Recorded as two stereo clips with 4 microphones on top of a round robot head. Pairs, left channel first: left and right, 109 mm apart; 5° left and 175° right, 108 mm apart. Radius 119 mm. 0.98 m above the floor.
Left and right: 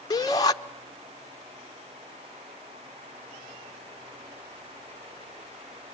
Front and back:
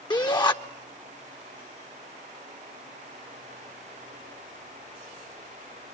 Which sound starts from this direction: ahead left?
A shout, at 0.1 s.